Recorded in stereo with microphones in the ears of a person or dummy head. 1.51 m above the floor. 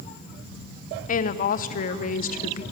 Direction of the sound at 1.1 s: 50° left (ahead or behind).